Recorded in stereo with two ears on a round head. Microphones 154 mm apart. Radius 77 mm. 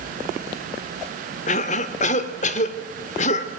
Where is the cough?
40° left (ahead or behind), 2.0 m.